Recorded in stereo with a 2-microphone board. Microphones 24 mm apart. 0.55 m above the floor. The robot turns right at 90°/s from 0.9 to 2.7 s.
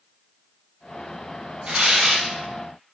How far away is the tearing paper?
About 0.8 m.